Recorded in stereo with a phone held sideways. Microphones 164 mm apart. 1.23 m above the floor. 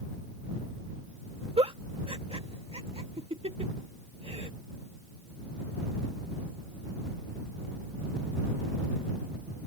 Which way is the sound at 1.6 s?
35° right (ahead or behind).